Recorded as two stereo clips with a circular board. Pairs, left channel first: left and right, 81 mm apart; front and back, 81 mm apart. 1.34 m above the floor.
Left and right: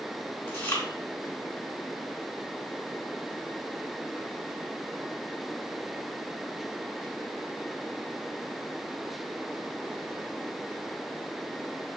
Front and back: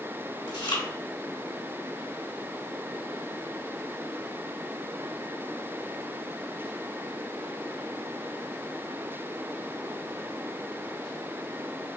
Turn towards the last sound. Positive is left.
turn(degrees=25)